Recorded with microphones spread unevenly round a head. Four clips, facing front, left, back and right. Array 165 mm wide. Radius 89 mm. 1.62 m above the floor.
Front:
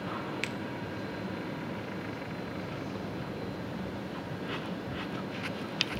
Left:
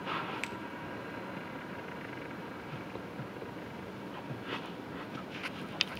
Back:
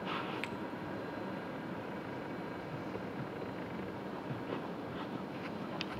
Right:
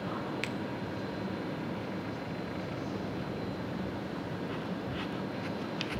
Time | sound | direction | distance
0.4 | a finger snap | 145° right | 0.6 m